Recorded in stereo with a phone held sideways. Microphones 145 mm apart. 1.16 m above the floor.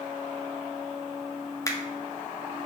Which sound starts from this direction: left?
A finger snap, at 1.7 s.